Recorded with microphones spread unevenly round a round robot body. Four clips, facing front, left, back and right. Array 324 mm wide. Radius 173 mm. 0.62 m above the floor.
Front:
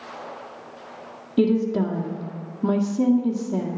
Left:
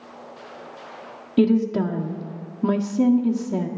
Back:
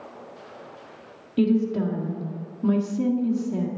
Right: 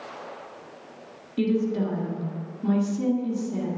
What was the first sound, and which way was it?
A woman speaking, 50° left.